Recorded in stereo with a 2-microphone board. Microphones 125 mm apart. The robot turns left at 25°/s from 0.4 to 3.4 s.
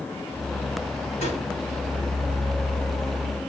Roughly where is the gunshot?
Left.